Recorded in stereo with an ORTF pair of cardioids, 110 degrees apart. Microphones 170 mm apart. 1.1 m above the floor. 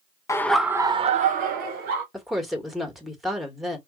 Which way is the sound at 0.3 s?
20° left.